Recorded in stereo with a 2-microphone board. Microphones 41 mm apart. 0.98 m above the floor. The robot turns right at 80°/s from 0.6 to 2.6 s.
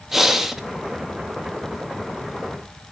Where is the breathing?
5° right (ahead or behind), 0.6 m.